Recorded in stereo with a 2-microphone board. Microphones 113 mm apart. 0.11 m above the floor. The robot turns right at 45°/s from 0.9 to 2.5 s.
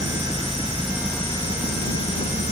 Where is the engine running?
5° left; by 2.5 s 75° left.